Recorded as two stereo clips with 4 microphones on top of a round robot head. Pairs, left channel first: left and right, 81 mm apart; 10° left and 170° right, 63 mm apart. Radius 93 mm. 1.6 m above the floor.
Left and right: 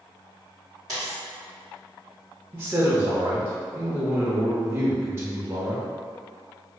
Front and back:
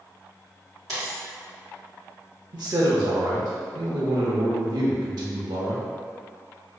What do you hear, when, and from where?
0.9 s a dropped coin: 140° right, 1.1 m
2.5 s a man speaking: 155° right, 0.6 m